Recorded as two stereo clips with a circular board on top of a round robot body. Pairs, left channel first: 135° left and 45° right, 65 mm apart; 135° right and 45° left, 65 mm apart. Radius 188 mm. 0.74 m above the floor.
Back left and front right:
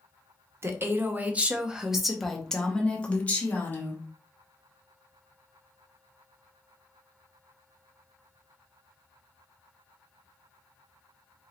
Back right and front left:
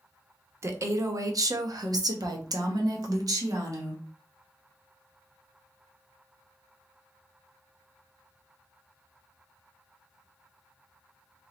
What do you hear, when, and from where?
0.6 s a woman speaking: straight ahead, 1.2 m; by 4.0 s 75° left, 1.9 m